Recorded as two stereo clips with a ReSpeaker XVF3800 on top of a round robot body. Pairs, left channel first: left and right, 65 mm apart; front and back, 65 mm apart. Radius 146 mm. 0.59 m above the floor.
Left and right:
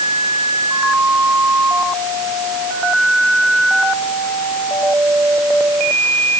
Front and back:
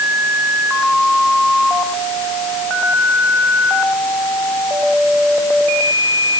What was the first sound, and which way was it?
Only background noise.